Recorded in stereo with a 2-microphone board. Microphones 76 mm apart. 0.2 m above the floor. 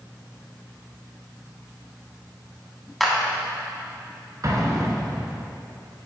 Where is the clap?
Centre (ahead or behind), 1.3 m.